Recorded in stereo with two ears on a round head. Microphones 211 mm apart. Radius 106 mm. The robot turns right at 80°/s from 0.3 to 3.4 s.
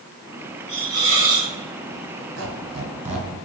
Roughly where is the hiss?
Behind.